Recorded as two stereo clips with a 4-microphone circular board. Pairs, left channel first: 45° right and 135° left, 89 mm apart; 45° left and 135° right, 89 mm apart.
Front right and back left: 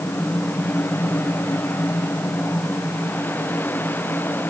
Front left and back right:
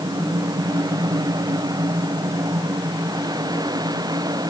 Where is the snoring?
No snoring in this recording.